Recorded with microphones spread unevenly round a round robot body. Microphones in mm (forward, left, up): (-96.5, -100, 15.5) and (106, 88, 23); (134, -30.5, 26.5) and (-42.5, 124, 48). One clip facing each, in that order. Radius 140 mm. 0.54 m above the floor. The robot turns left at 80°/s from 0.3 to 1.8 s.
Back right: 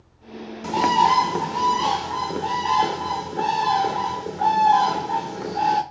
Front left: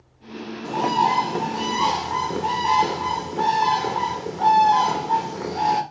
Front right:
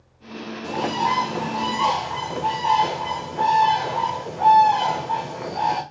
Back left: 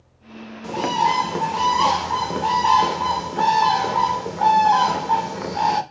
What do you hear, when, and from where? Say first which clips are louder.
0.6 s a bird: back right 1 dB, back left 2 dB; 145° right, 0.7 m; by 5.8 s 125° left, 0.7 m